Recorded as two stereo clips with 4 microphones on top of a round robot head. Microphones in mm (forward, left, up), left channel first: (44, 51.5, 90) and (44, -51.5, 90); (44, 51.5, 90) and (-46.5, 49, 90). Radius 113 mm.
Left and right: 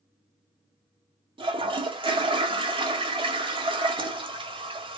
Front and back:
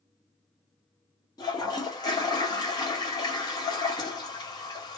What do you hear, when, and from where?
1.4 s a toilet flushing: 50° right, 1.1 m